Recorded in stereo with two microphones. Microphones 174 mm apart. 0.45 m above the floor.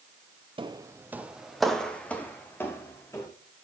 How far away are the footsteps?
About 0.7 m.